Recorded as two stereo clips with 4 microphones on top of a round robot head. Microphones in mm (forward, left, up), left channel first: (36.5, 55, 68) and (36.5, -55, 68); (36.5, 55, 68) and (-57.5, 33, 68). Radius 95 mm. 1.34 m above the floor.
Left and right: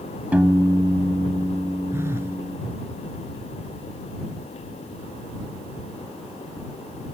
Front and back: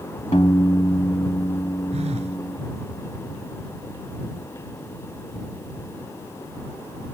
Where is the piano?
20° right.